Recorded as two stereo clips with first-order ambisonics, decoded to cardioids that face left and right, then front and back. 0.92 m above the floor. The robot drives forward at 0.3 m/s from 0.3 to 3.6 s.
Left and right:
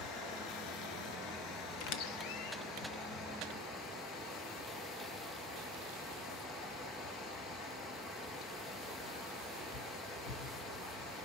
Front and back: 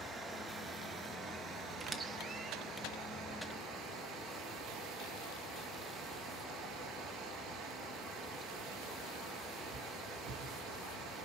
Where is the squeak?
105° left, 1.0 m; by 2.6 s 115° left, 1.1 m.